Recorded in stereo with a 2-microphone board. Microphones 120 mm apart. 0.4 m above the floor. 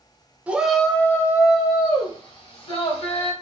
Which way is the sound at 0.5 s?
10° right (ahead or behind).